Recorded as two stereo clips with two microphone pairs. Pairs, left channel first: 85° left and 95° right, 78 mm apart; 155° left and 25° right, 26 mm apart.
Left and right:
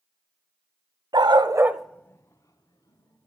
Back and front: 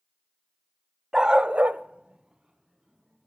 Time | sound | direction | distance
1.1 | a dog barking | 85° right | 1.0 m